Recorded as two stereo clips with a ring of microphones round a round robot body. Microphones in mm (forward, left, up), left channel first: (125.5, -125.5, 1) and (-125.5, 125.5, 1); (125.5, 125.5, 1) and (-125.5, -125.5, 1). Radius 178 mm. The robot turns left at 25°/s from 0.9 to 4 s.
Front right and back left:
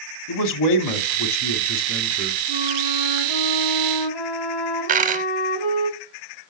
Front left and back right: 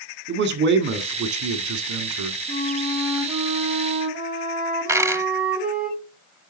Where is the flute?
30° right, 5 m; by 5.9 s 70° right, 5 m.